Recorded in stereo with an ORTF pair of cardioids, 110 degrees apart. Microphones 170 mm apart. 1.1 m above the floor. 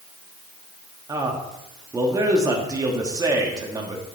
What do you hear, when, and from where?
1.1 s a man speaking: 20° right, 1.7 m